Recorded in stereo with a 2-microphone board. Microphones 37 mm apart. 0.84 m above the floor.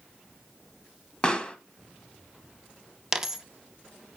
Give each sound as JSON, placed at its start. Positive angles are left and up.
{"t": 1.2, "sound": "a pop", "side_deg": 25, "distance_m": 0.9}
{"t": 3.1, "sound": "a dropped coin", "side_deg": -10, "distance_m": 0.5}